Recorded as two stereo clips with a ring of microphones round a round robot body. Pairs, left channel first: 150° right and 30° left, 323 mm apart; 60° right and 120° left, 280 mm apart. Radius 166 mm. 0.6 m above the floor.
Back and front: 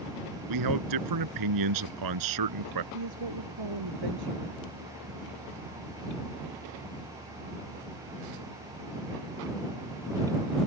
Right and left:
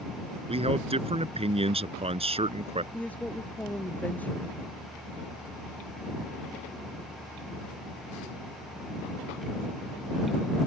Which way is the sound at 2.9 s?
25° left.